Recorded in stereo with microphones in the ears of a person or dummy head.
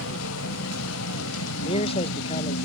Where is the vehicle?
90° left; by 2.7 s 75° left (ahead or behind).